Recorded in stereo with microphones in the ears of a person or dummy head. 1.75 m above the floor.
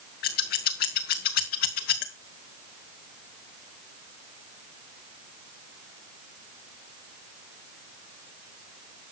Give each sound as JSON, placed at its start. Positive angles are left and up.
{"t": 0.2, "sound": "scissors", "side_deg": 55, "distance_m": 1.2}